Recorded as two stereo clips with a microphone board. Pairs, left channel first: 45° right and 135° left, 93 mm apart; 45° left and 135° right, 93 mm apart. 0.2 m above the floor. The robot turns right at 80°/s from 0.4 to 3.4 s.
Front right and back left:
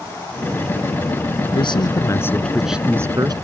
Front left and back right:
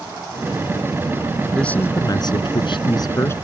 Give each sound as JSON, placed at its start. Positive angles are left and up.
{"t": 1.6, "sound": "a man speaking", "azimuth_deg": -40}